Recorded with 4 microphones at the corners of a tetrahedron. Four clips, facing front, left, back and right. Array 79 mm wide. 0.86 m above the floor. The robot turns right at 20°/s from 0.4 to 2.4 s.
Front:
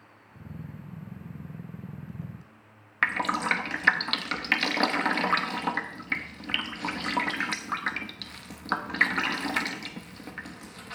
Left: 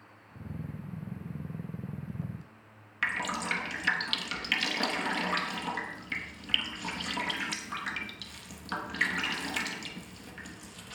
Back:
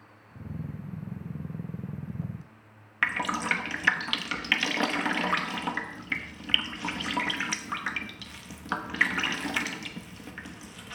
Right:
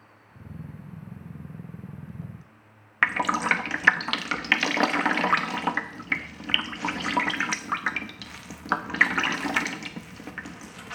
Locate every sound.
3.0 s dripping: 75° right, 1.0 m